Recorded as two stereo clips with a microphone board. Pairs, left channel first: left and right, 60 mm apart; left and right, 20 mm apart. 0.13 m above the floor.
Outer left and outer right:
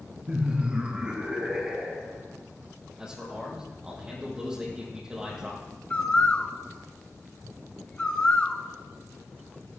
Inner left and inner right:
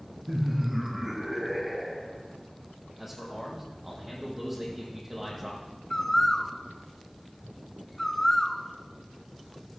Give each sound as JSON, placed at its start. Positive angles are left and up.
{"t": 0.3, "sound": "laughter", "side_deg": -20, "distance_m": 1.5}
{"t": 3.0, "sound": "a man speaking", "side_deg": -15, "distance_m": 4.5}
{"t": 5.9, "sound": "a bird", "side_deg": 25, "distance_m": 0.9}